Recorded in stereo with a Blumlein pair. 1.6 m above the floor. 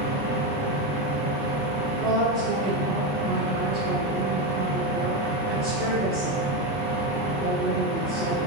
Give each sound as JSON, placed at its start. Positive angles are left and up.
{"t": 0.0, "sound": "a machine running", "azimuth_deg": -60, "distance_m": 1.8}
{"t": 2.0, "sound": "a woman speaking", "azimuth_deg": -30, "distance_m": 0.9}